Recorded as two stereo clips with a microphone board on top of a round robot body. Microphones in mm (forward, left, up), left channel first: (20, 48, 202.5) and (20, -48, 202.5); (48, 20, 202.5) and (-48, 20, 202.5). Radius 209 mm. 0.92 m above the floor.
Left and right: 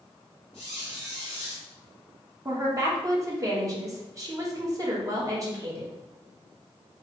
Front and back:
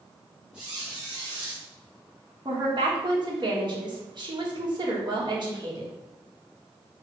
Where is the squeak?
100° left, 0.5 m.